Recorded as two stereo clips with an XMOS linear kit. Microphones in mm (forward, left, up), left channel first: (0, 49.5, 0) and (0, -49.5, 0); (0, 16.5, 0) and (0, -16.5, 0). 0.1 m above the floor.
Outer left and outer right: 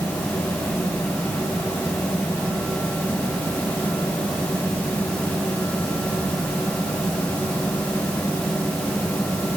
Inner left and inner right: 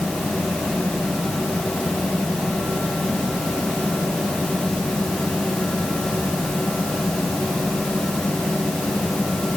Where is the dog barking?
I don't hear a dog barking.